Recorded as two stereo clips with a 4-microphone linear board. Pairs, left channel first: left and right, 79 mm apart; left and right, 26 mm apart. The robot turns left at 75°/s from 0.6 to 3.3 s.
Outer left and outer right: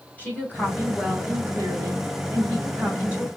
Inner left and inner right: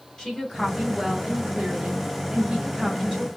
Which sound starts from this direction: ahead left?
A woman speaking, at 0.2 s.